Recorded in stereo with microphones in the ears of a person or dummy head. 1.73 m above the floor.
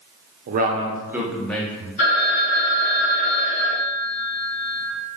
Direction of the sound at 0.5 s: 50° right (ahead or behind).